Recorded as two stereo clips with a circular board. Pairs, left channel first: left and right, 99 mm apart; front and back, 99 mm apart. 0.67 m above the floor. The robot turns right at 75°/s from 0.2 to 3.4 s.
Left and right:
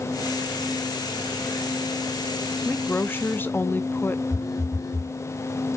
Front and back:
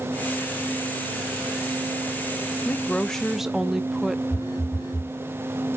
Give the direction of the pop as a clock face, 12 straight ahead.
No pop in this recording.